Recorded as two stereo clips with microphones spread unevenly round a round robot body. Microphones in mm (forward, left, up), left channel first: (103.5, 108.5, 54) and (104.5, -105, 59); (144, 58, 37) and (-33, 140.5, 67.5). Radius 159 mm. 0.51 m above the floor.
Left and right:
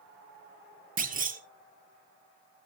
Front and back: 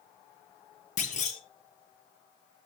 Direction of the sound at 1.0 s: 50° right.